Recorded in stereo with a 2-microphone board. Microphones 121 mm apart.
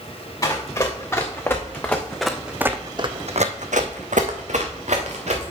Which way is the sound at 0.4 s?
30° left (ahead or behind).